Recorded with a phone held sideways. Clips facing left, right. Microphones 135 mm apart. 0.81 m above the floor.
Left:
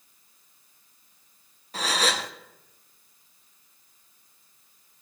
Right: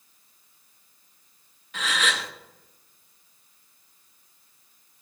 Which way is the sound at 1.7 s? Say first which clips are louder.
Left 2 dB; 35° left (ahead or behind).